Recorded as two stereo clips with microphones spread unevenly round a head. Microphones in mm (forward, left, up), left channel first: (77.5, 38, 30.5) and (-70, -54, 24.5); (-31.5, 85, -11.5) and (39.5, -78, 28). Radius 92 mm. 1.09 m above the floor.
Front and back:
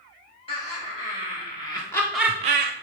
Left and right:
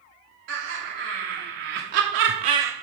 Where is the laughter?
25° right, 3 m; by 2.7 s 155° right, 0.7 m.